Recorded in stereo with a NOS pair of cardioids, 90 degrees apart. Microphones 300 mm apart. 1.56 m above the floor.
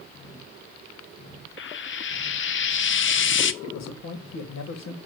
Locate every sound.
1.6 s frying: 40° left, 0.8 m
3.6 s a man speaking: 65° left, 2.5 m